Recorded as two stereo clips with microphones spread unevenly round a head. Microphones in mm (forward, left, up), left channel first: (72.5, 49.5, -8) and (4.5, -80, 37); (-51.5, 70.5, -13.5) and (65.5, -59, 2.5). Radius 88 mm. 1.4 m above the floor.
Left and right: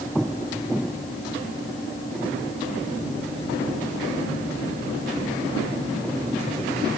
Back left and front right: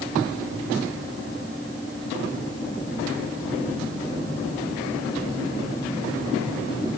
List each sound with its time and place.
Only background noise.